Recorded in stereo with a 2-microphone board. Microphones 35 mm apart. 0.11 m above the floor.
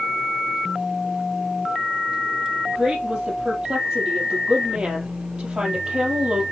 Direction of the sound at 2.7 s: 20° right (ahead or behind).